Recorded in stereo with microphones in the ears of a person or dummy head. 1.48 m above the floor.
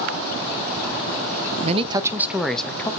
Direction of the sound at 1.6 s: 40° right (ahead or behind).